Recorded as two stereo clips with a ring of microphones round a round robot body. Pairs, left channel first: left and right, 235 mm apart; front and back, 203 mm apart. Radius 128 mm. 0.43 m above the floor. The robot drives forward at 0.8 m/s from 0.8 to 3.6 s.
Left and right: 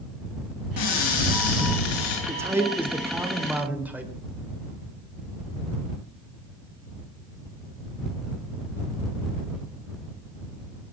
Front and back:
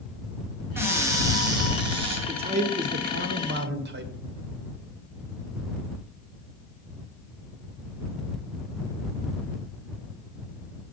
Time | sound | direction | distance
0.8 | a cupboard door | 100° left | 3.5 m
2.3 | a man speaking | 155° right | 1.2 m